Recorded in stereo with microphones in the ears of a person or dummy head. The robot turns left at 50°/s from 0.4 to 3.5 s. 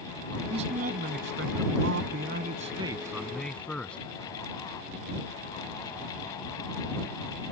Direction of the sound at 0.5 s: 40° right.